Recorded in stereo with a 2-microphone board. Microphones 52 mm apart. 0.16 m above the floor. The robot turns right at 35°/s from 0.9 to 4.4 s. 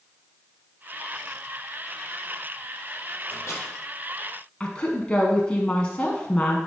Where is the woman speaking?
20° left (ahead or behind), 1.0 m.